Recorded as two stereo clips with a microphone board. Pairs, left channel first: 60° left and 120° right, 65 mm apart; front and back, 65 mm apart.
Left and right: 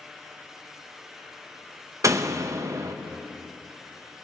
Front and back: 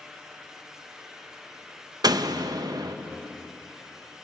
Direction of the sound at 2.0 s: 165° right.